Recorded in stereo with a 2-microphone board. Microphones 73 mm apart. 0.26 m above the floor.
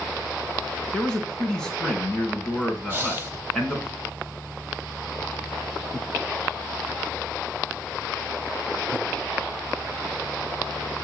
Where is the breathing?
25° right (ahead or behind), 1.4 m.